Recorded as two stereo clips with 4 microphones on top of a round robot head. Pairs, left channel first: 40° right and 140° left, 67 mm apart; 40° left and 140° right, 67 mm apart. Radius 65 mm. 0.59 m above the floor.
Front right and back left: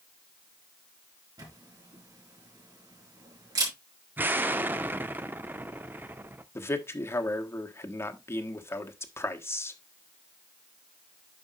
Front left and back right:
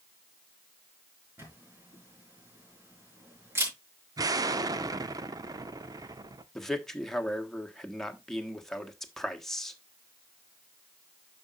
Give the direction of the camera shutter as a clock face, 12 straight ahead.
7 o'clock.